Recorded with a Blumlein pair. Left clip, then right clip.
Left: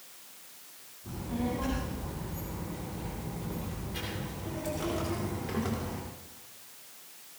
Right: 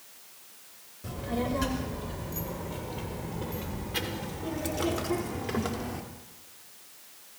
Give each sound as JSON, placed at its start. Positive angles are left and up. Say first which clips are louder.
{"t": 1.0, "sound": "a child speaking", "louder": "right 4 dB", "azimuth_deg": -40, "distance_m": 4.5}